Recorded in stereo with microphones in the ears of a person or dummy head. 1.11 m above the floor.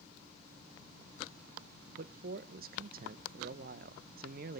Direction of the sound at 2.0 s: 50° right (ahead or behind).